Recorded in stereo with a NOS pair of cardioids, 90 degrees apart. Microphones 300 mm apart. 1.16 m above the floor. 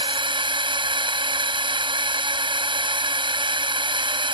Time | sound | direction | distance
0.0 | a drone | 15° right | ?